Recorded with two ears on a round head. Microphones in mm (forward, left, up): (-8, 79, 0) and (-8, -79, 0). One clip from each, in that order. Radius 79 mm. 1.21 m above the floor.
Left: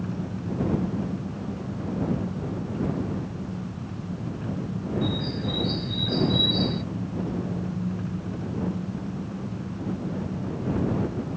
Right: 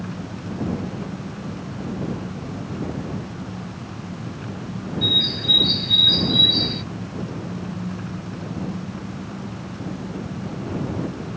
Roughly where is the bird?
Right.